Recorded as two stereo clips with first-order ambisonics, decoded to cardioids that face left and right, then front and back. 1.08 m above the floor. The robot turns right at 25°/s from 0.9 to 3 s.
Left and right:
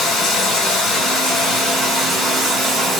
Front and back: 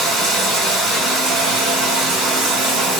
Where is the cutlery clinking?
No cutlery clinking in this recording.